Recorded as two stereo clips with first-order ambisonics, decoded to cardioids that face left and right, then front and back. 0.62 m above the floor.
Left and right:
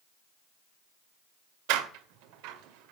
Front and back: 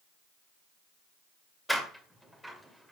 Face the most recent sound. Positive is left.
turn(degrees=-90)